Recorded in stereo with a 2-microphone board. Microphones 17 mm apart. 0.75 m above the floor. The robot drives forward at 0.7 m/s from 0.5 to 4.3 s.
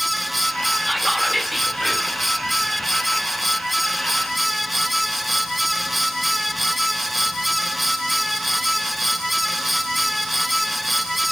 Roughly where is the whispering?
Centre.